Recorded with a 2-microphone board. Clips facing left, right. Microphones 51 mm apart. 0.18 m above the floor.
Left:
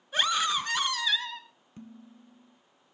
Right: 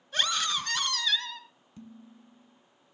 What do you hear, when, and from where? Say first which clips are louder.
0.1 s a scream: left 3 dB; 15° left (ahead or behind), 1.9 m
1.8 s dishes clattering: left 1 dB; 30° left (ahead or behind), 1.2 m